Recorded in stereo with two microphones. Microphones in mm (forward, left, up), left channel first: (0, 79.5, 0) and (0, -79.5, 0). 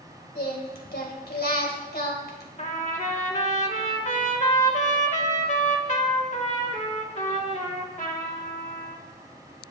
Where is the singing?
70° left (ahead or behind), 2.5 m.